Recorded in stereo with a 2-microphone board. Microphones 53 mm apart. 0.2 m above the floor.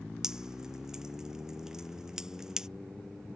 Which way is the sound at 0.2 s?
10° right (ahead or behind).